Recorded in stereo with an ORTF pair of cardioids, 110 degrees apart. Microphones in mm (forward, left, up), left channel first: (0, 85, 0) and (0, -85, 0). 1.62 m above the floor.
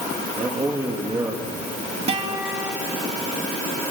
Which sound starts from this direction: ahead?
A man speaking, at 0.4 s.